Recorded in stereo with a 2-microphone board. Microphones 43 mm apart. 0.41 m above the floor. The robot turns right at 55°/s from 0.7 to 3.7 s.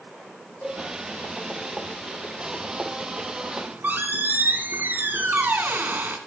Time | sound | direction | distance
0.6 | a cowbell | 70° left (ahead or behind) | 2.5 m
3.6 | a squeak | 55° right (ahead or behind) | 1.2 m